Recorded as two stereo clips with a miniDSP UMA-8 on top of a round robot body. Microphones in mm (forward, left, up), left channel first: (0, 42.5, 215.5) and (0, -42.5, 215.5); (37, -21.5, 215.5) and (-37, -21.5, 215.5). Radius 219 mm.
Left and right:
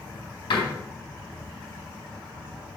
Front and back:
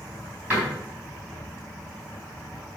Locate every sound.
0.5 s a door slam: 110° left, 4 m